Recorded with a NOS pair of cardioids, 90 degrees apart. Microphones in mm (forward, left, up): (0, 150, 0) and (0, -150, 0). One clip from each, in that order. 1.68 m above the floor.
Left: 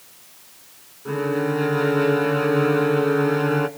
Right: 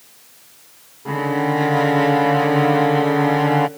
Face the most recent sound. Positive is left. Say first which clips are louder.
# right 3 dB
turn(degrees=-35)